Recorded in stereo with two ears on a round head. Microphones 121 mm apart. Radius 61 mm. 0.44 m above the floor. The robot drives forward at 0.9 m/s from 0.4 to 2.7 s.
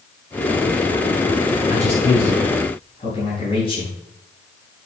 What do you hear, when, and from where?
1.7 s a man speaking: 50° left (ahead or behind), 3 m; by 3.9 s 40° left (ahead or behind), 3.5 m